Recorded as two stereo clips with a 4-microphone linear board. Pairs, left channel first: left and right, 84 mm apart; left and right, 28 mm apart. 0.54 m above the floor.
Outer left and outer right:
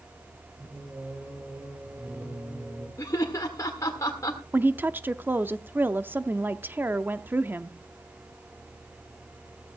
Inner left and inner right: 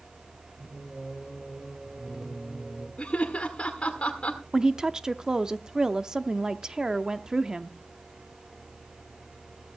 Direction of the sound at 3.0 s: 40° left (ahead or behind).